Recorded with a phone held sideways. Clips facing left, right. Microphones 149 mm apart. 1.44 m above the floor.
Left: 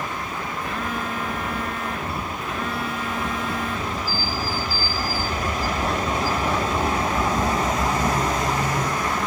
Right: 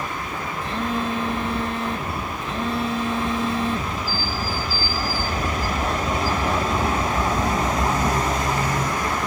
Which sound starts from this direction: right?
A phone buzzing, at 0.6 s.